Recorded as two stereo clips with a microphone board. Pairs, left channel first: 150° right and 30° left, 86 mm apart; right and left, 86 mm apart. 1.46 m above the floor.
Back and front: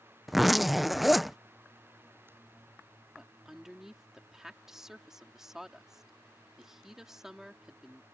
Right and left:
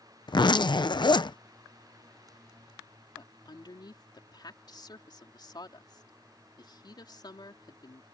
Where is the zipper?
60° right.